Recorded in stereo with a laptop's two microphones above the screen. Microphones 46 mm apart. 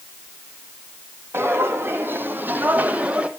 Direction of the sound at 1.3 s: 60° right (ahead or behind).